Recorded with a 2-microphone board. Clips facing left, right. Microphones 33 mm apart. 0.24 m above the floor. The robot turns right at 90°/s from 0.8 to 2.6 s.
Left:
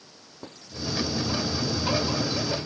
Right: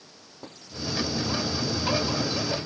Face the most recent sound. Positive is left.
No sound to turn to.